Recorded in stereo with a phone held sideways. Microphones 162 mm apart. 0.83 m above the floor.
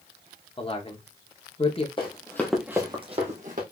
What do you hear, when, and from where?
0.6 s a man speaking: 35° left (ahead or behind), 0.7 m
2.0 s running footsteps: 30° left (ahead or behind), 1.2 m; by 3.6 s 55° right (ahead or behind), 1.4 m